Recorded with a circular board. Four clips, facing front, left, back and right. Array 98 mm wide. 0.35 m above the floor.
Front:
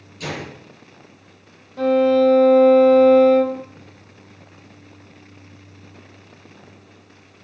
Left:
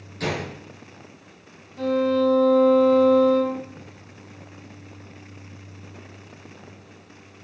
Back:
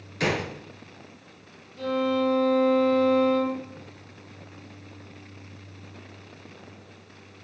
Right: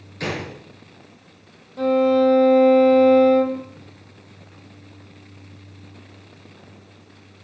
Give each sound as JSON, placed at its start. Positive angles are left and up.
{"t": 0.2, "sound": "a gunshot", "azimuth_deg": -165, "distance_m": 6.0}
{"t": 1.8, "sound": "a violin", "azimuth_deg": -35, "distance_m": 3.5}